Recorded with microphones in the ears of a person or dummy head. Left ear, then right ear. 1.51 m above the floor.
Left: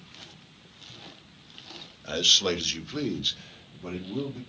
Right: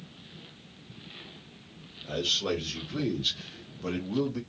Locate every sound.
2.0 s a man speaking: 55° left (ahead or behind), 0.8 m; by 4.4 s 40° right (ahead or behind), 0.8 m